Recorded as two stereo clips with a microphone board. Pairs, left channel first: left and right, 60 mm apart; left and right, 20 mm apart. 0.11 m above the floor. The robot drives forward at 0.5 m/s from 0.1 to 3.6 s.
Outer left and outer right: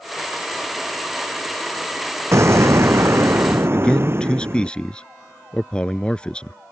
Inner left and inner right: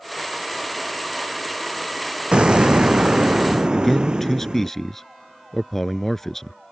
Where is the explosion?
55° right (ahead or behind); by 4.7 s 45° right (ahead or behind).